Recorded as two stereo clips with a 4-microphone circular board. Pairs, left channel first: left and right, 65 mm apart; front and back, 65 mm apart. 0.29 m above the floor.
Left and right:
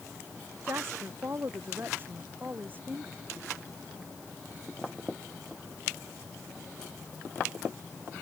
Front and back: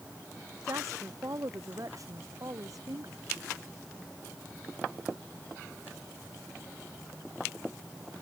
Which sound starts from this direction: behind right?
A woman speaking, at 0.6 s.